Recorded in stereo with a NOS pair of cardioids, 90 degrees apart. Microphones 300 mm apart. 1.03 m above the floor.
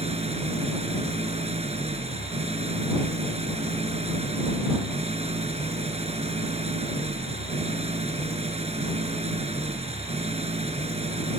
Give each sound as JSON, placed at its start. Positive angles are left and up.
{"t": 0.0, "sound": "an engine running", "azimuth_deg": -20}